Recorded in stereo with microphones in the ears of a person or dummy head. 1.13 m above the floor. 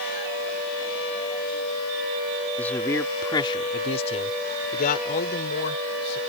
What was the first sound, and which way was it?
A man speaking, 5° left (ahead or behind).